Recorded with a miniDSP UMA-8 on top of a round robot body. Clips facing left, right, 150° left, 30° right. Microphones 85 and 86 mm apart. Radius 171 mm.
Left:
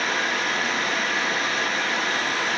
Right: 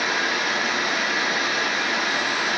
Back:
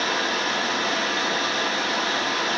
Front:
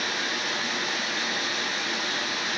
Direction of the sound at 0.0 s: 170° right.